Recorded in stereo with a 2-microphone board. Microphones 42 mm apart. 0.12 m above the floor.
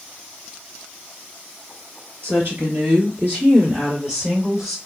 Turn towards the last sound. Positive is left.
turn(degrees=-20)  # may be behind; listen again after turning